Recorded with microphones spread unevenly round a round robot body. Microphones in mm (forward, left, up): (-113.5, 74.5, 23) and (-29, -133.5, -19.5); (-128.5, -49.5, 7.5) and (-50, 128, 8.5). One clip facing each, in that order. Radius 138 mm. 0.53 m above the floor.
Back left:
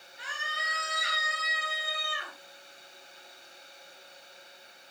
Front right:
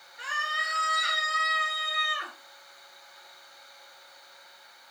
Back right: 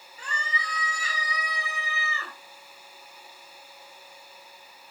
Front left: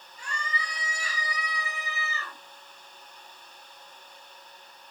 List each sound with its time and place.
0.2 s a scream: 105° right, 9.5 m; by 2.3 s 110° right, 9 m